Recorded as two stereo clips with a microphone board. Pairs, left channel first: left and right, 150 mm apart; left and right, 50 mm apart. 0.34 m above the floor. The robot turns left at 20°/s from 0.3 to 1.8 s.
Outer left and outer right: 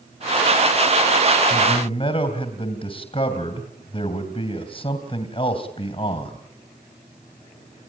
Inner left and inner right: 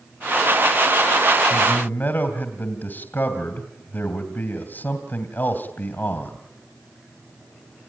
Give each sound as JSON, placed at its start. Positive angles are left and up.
{"t": 1.5, "sound": "a man speaking", "side_deg": 30, "distance_m": 2.5}